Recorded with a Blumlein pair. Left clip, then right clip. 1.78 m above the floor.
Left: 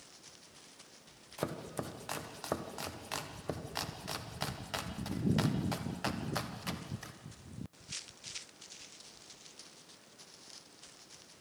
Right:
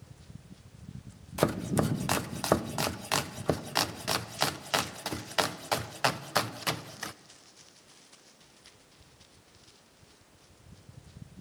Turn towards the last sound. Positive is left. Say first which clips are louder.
# right 11 dB
turn(degrees=-60)